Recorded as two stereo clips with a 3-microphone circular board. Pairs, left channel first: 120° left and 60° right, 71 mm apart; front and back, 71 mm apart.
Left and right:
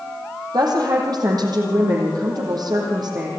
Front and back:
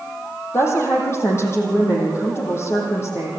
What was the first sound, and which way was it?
A woman speaking, 50° right.